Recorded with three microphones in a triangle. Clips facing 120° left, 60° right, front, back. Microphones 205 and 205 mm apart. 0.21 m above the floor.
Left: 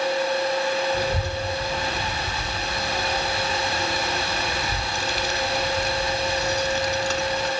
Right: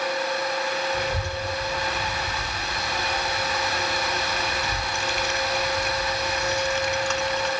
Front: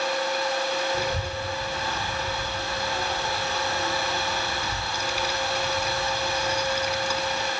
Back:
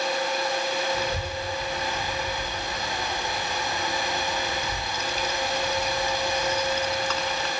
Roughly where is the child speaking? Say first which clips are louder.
Left 3 dB, front 1 dB; left.